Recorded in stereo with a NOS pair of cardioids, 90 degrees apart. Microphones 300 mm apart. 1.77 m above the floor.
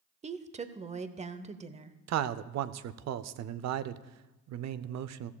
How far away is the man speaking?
About 0.6 m.